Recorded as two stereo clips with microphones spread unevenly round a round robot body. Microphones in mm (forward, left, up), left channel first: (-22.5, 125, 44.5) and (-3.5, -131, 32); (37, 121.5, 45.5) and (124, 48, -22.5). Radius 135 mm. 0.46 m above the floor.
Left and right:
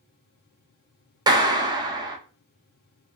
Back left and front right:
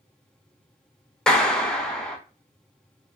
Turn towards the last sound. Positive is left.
turn(degrees=-35)